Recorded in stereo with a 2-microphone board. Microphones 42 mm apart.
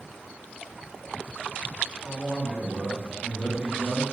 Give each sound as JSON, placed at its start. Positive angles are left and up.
{"t": 2.0, "sound": "a man speaking", "side_deg": -5, "distance_m": 1.2}